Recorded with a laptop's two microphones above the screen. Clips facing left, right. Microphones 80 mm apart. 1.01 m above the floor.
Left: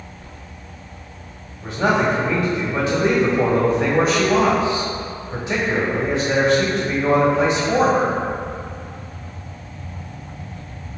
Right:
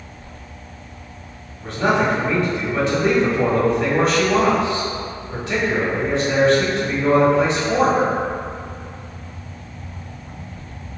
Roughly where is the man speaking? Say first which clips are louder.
Even; left.